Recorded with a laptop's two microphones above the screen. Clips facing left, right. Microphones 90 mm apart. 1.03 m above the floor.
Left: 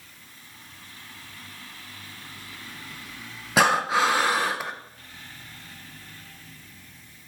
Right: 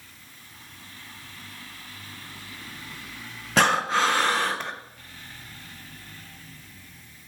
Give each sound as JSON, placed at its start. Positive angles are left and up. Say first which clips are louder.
{"t": 3.6, "sound": "breathing", "louder": "left 1 dB", "side_deg": 10, "distance_m": 0.5}